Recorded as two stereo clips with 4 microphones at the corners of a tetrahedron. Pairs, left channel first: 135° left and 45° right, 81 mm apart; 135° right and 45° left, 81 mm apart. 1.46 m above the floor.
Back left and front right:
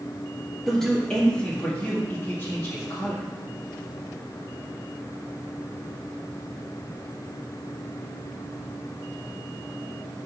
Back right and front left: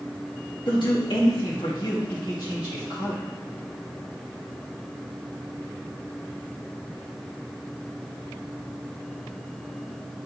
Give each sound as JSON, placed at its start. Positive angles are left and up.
{"t": 0.7, "sound": "a man speaking", "azimuth_deg": -140, "distance_m": 2.0}